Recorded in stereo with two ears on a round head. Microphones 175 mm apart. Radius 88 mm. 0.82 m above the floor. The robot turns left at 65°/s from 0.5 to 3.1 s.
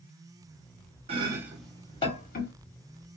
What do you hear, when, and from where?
1.1 s chopping: 35° right (ahead or behind), 1.2 m; by 2.5 s 60° left (ahead or behind), 1.2 m